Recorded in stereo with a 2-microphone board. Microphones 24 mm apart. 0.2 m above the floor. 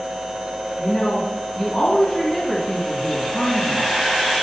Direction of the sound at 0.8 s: 35° left (ahead or behind).